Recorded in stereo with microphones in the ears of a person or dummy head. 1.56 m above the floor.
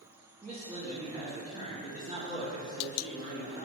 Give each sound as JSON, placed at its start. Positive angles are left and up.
{"t": 0.4, "sound": "a man speaking", "side_deg": -15, "distance_m": 0.9}